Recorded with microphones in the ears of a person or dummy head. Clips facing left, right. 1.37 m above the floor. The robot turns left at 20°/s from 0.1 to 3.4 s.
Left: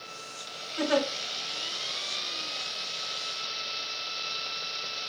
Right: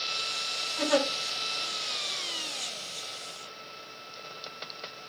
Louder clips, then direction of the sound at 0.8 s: Even; 45° left (ahead or behind).